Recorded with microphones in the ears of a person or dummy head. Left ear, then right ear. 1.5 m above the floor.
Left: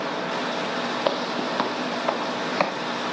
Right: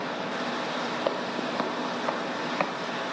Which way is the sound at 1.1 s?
10° left (ahead or behind).